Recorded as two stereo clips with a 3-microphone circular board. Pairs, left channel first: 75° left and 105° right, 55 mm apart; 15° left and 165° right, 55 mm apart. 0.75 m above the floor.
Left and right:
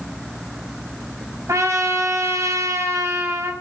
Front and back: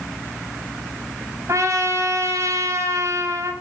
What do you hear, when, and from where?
1.5 s a trumpet: 135° right, 4.5 m